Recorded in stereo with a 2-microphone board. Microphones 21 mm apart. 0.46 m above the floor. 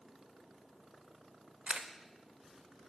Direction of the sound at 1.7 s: 65° right (ahead or behind).